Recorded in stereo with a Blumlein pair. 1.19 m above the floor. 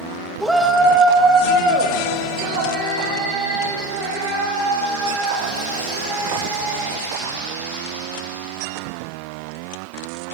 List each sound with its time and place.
0.4 s a shout: straight ahead, 1.0 m; by 8.6 s 55° right, 6.5 m